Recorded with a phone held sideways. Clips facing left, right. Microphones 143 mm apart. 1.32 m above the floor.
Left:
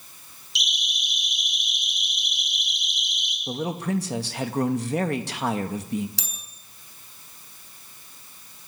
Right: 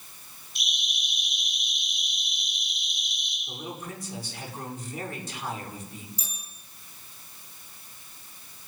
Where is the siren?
85° left, 9.5 m; by 3.4 s 75° left (ahead or behind), 8 m.